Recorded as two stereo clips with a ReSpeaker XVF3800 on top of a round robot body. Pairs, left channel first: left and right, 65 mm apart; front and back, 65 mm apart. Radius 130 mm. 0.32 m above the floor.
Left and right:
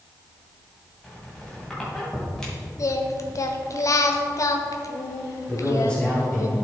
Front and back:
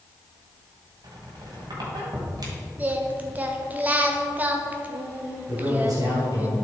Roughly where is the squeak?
Behind.